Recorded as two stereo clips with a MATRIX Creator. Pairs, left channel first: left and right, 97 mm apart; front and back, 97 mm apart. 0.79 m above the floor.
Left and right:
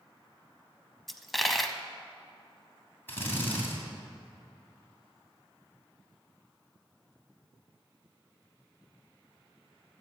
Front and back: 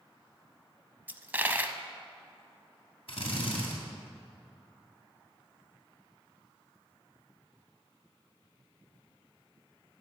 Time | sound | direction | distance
1.1 | a dropped coin | 175° left | 0.6 m
3.1 | a drill | 20° left | 2.5 m